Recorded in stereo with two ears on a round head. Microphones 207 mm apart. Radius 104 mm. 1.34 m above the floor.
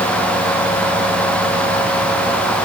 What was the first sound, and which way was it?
Only background noise.